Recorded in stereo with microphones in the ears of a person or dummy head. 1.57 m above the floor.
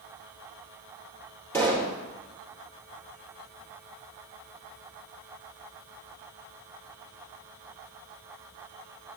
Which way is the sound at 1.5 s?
15° left (ahead or behind).